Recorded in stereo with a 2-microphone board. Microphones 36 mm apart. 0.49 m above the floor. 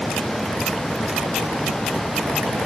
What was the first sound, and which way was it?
Only background noise.